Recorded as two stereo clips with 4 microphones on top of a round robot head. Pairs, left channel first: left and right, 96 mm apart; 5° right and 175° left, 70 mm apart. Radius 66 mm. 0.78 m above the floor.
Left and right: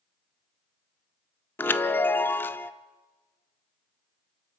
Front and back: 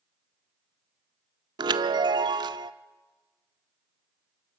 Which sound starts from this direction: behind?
A chime, at 1.6 s.